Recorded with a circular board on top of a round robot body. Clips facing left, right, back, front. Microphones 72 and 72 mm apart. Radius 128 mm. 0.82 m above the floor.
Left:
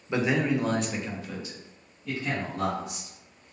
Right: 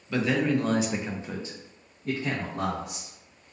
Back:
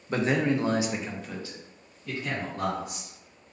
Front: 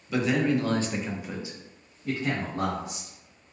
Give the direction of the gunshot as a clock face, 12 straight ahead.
I don't hear a gunshot.